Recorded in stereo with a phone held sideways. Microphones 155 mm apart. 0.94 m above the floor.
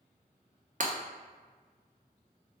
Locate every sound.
0.8 s breaking glass: 55° right (ahead or behind), 0.7 m